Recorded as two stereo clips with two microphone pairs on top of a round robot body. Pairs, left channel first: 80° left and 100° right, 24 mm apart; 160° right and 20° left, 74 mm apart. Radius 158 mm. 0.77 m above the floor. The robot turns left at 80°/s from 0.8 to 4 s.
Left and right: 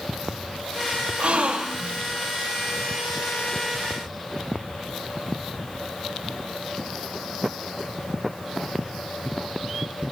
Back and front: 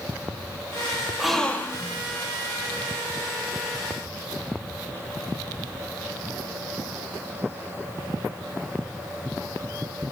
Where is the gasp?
65° right, 1.7 m; by 2.0 s 130° right, 1.7 m.